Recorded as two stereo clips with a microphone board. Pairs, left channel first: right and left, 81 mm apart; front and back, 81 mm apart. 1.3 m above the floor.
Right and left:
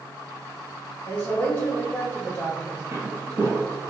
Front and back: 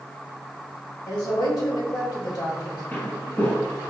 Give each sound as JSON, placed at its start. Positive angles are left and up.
{"t": 1.1, "sound": "a woman speaking", "azimuth_deg": -25, "distance_m": 1.6}
{"t": 2.9, "sound": "footsteps", "azimuth_deg": 55, "distance_m": 1.6}